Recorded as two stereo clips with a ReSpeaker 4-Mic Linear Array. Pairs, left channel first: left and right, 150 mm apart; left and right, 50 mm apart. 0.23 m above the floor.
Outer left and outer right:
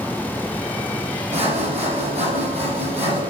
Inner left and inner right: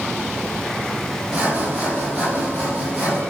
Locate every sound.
1.3 s sawing: 45° right (ahead or behind), 6 m